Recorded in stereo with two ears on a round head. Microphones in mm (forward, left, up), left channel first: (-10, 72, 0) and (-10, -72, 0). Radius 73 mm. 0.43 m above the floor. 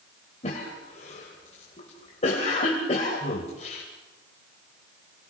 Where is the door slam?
I don't hear a door slam.